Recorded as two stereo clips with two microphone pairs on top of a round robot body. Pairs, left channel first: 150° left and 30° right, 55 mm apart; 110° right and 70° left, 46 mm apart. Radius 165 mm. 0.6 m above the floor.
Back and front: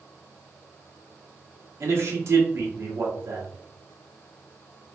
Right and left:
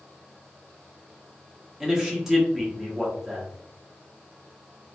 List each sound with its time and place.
1.8 s a man speaking: 5° right, 1.4 m